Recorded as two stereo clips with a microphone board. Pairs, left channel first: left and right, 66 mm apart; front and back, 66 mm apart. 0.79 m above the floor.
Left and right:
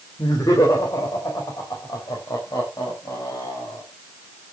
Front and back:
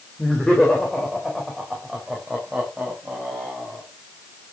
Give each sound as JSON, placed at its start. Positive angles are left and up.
{"t": 0.2, "sound": "laughter", "azimuth_deg": 75, "distance_m": 3.5}